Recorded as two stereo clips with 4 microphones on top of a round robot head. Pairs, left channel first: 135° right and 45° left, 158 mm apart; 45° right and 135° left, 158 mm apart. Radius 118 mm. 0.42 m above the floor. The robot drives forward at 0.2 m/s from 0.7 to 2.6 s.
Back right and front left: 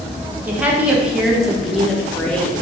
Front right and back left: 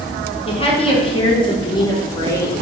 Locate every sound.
0.5 s a woman speaking: 30° right, 0.9 m; by 2.6 s 75° right, 0.8 m